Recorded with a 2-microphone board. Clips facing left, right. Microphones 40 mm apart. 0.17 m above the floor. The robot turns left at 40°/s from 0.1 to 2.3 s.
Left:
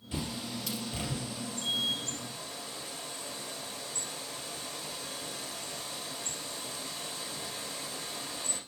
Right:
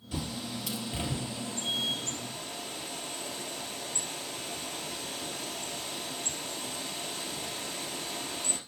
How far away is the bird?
About 2.5 m.